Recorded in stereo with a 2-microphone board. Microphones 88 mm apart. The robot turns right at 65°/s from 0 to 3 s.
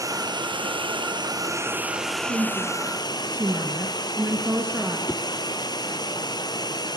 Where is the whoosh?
10° left (ahead or behind), 1.0 m.